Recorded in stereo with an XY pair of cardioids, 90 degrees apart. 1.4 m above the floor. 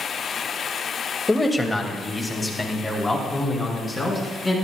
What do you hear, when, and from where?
1.3 s a man speaking: 15° left, 2 m; by 4.5 s 5° left, 6 m